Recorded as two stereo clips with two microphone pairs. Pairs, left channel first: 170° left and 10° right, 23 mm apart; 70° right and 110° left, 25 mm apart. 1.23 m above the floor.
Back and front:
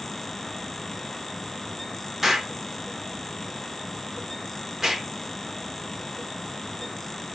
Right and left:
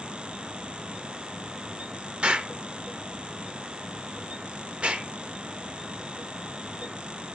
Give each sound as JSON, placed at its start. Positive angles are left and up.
{"t": 2.2, "sound": "an explosion", "azimuth_deg": 75, "distance_m": 1.2}